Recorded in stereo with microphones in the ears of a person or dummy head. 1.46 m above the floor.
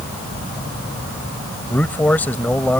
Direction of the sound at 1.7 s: 10° left (ahead or behind).